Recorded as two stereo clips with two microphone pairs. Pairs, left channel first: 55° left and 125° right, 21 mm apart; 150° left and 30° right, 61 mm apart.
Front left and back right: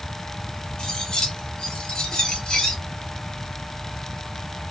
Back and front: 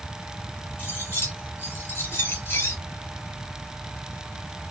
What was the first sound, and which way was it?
Cutlery clinking, 105° left.